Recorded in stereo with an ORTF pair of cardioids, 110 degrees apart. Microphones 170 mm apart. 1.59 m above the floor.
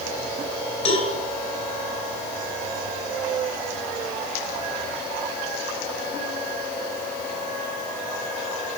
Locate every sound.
0.8 s a cowbell: 40° left, 5.5 m